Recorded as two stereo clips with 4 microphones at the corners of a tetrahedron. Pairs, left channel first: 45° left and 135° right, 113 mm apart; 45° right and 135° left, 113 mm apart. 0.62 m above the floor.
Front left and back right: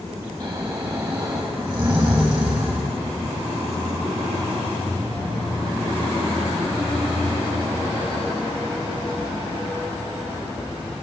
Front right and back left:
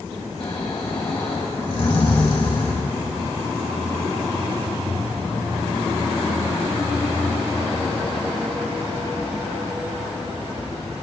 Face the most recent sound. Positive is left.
turn(degrees=-85)